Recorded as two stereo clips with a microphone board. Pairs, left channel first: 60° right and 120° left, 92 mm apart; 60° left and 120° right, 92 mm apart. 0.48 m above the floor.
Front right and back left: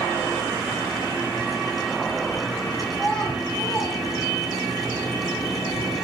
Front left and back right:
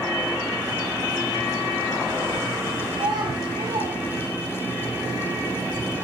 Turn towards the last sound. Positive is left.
turn(degrees=-130)